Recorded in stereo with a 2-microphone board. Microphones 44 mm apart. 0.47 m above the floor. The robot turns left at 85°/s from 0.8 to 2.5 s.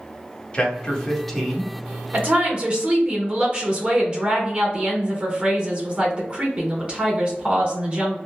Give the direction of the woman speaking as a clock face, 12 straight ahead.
4 o'clock.